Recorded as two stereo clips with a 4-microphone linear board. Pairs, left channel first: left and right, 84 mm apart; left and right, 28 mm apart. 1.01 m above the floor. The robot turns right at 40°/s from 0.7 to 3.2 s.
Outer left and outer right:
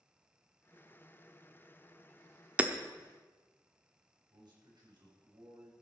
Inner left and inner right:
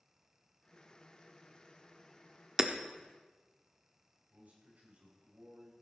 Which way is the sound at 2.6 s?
20° right (ahead or behind).